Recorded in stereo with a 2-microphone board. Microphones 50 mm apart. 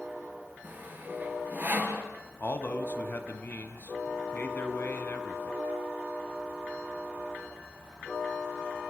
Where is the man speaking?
40° left (ahead or behind), 2 m.